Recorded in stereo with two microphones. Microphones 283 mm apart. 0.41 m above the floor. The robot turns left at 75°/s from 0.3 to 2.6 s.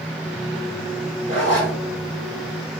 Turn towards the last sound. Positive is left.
turn(degrees=-10)